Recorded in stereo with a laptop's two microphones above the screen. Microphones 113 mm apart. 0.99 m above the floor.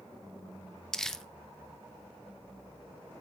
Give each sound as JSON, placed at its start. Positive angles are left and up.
{"t": 0.9, "sound": "crumpling", "side_deg": 5, "distance_m": 0.8}